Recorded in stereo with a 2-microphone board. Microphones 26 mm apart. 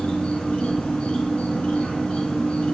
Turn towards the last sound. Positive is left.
turn(degrees=45)  # may be behind; listen again after turning